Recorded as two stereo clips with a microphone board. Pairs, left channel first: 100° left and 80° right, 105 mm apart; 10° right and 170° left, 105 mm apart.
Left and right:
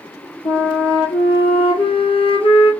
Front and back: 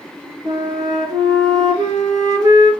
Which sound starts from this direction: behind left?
A flute, at 0.5 s.